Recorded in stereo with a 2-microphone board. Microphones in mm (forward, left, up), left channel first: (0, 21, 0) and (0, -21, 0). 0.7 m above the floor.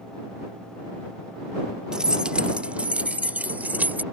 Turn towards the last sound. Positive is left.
turn(degrees=-45)  # may be behind; listen again after turning